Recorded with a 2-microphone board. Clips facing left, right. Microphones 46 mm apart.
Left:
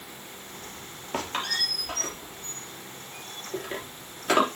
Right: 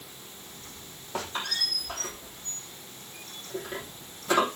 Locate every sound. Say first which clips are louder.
1.1 s a squeak: left 3 dB; 75° left (ahead or behind), 3.5 m